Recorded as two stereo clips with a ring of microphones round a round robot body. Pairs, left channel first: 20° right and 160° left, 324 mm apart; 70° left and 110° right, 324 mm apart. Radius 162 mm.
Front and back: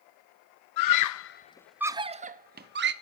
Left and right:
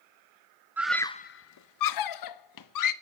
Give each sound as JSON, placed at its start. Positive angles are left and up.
{"t": 0.8, "sound": "a scream", "azimuth_deg": -30, "distance_m": 0.7}